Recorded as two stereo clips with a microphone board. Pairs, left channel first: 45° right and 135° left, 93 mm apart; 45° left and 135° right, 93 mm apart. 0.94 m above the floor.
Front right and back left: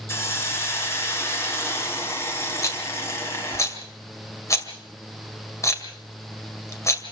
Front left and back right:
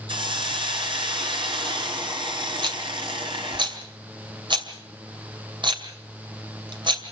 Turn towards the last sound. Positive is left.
turn(degrees=-105)